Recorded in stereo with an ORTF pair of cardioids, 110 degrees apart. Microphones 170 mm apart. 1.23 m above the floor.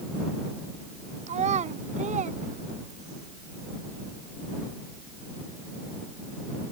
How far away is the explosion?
No explosion in this recording.